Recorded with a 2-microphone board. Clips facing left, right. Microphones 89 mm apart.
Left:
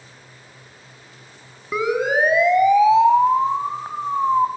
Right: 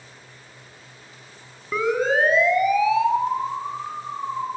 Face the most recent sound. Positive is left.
turn(degrees=65)  # may be behind; listen again after turning